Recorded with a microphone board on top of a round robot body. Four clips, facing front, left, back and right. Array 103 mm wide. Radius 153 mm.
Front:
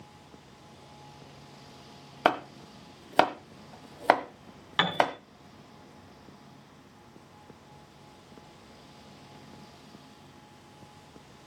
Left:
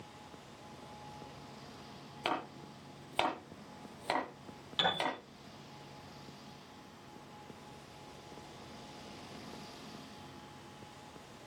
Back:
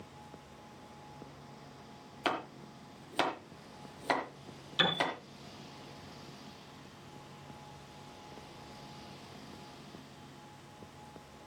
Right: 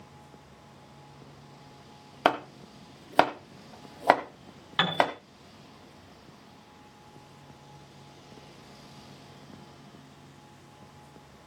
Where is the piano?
40° right, 6 m.